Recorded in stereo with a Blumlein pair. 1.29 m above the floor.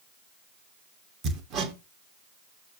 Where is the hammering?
30° right, 1.3 m.